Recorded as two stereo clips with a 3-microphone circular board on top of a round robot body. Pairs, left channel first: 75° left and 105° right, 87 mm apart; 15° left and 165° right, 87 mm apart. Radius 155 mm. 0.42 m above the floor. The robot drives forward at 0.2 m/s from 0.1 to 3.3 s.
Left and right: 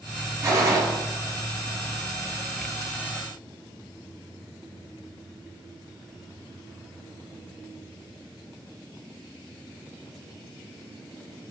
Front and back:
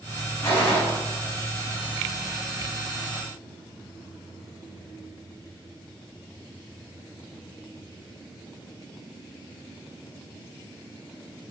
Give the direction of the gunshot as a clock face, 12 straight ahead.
2 o'clock.